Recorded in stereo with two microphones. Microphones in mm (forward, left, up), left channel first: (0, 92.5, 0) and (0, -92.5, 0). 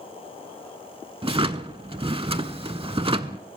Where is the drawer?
30° right (ahead or behind), 0.6 m.